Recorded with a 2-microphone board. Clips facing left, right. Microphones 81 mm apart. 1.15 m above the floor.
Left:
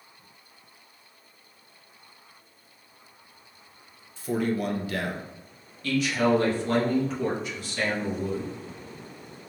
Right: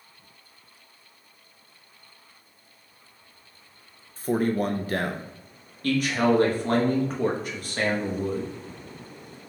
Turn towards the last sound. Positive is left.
turn(degrees=-50)  # may be behind; listen again after turning